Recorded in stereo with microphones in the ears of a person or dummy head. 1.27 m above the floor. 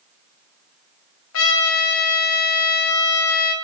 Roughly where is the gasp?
No gasp in this recording.